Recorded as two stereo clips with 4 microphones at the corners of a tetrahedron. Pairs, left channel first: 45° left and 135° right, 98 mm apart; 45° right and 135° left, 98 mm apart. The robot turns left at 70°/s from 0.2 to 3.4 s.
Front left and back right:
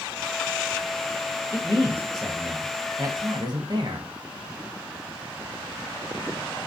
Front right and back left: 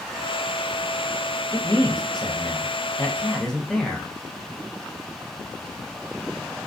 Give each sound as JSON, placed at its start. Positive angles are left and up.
{"t": 1.5, "sound": "a man speaking", "azimuth_deg": 5, "distance_m": 0.6}